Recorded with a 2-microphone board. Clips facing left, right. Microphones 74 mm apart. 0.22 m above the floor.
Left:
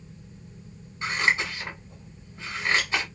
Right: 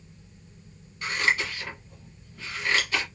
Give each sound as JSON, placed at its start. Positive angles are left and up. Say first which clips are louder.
{"t": 1.0, "sound": "scissors", "louder": "left 1 dB", "side_deg": 25, "distance_m": 1.3}